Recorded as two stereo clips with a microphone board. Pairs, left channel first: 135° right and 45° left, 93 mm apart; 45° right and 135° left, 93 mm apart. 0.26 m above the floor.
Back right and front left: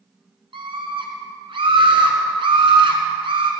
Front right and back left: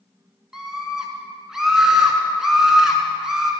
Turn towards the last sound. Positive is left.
turn(degrees=50)